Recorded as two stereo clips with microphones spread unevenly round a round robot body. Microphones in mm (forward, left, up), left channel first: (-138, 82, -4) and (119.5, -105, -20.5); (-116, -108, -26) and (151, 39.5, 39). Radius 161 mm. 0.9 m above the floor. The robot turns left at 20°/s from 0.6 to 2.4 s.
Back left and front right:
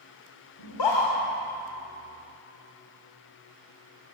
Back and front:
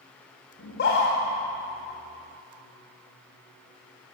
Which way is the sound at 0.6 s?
155° left.